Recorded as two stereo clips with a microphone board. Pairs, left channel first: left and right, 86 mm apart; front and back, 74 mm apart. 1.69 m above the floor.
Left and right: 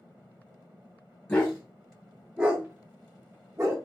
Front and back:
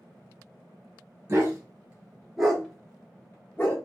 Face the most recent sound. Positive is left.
turn(degrees=-45)